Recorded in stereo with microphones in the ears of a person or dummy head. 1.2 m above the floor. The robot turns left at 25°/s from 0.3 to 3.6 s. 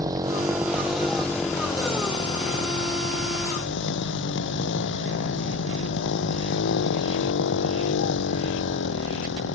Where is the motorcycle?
160° right; by 9.6 s 115° left.